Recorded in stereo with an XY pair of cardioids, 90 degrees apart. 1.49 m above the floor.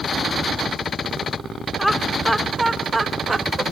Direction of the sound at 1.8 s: 5° left.